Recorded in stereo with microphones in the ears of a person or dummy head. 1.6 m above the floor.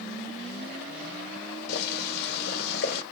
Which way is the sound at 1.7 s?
60° left (ahead or behind).